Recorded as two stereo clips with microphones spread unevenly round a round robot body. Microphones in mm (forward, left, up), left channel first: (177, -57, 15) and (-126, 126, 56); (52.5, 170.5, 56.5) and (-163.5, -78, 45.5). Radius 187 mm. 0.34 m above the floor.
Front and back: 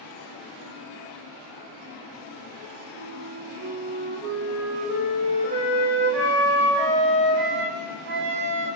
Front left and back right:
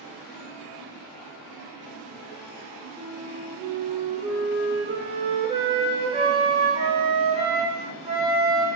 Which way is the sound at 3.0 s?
175° right.